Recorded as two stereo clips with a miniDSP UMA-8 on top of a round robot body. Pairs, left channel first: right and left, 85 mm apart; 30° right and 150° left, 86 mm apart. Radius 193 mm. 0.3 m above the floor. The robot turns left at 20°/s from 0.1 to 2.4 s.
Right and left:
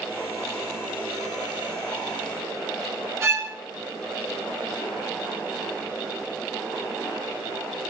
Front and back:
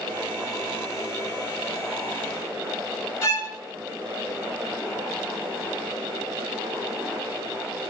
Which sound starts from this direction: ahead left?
A violin, at 3.2 s.